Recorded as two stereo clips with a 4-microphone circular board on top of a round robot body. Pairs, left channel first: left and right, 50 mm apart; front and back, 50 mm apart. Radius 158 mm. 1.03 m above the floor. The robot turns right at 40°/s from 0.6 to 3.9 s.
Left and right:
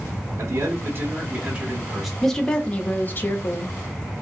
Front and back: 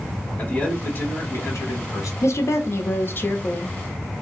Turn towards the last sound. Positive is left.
turn(degrees=70)